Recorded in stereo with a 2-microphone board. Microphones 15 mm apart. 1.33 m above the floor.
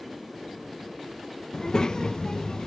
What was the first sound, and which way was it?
A child speaking, 40° left (ahead or behind).